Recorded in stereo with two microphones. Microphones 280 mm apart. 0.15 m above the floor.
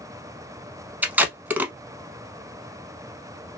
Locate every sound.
1.0 s tape being pulled: 5° right (ahead or behind), 0.6 m